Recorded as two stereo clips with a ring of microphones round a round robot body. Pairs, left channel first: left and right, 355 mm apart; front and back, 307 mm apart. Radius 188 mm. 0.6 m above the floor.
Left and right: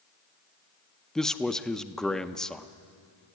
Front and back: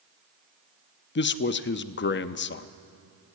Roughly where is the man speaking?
Ahead.